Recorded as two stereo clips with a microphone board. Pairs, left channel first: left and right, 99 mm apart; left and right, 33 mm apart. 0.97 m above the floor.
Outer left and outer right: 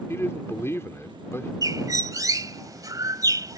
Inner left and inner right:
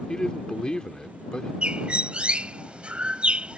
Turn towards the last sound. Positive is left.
turn(degrees=-35)  # may be behind; listen again after turning